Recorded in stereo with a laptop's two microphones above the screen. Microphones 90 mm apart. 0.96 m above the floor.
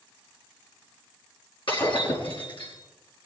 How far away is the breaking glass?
About 5 m.